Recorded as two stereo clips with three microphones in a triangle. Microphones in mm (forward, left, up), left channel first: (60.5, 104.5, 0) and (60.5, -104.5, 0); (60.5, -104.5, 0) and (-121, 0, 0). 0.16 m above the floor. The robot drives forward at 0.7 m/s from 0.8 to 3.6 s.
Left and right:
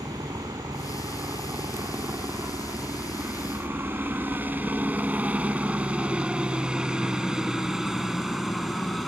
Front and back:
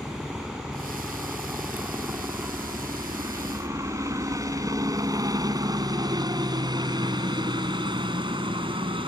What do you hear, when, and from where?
0.0 s a helicopter: 125° right; by 9.1 s straight behind